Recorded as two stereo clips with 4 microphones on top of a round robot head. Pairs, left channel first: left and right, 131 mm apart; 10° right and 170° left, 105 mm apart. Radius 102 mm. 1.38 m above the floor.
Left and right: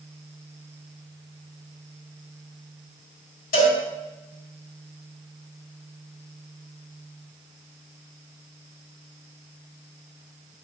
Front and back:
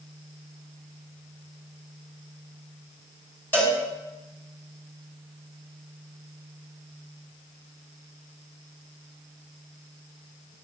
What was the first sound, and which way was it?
A cowbell, 65° left.